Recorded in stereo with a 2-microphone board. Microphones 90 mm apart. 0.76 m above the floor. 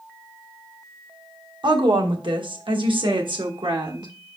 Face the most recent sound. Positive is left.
turn(degrees=-60)  # may be behind; listen again after turning